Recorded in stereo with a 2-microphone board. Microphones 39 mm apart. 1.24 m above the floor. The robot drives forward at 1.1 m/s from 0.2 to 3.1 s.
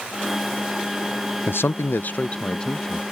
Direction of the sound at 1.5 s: 60° left (ahead or behind).